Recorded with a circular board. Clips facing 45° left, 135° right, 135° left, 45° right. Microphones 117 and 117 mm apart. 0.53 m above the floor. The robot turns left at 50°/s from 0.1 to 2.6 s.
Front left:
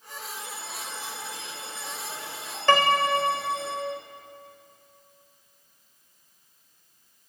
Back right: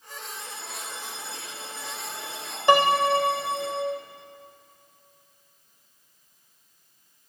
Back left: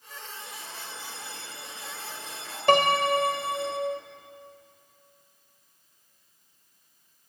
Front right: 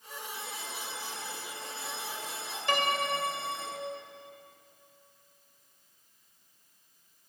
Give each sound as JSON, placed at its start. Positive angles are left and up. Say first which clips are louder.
{"t": 0.3, "sound": "a bell", "louder": "front left 1 dB, front right 1 dB", "azimuth_deg": -30, "distance_m": 9.5}
{"t": 2.7, "sound": "a piano", "louder": "back right 2 dB, back left 9 dB", "azimuth_deg": 155, "distance_m": 1.7}